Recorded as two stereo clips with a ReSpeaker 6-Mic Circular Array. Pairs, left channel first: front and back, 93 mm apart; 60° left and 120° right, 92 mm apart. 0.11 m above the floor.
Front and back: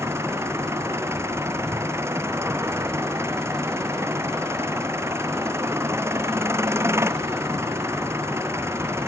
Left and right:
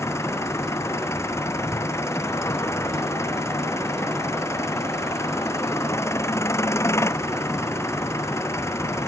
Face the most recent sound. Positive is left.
turn(degrees=120)